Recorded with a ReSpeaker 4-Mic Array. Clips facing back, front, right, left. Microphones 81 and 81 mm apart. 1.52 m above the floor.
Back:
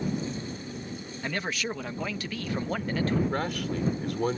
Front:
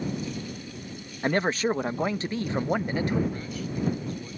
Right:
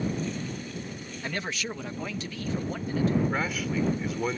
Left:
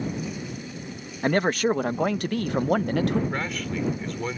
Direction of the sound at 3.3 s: 175° right.